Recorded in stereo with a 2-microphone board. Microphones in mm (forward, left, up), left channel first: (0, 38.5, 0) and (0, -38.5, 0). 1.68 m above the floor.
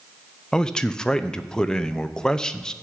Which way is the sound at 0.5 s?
10° left (ahead or behind).